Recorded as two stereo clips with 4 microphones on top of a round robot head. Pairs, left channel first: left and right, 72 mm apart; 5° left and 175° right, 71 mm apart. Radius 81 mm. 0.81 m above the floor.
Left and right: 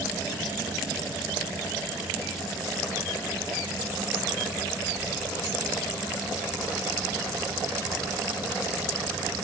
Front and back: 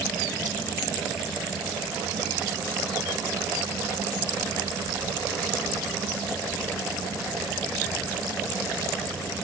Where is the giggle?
No giggle in this recording.